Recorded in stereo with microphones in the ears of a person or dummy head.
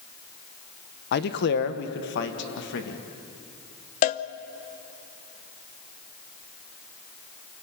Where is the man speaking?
55° left (ahead or behind), 1.3 m; by 3.0 s 60° left (ahead or behind), 2.5 m.